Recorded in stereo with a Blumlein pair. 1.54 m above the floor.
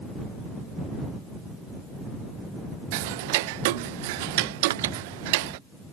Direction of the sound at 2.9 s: 50° right.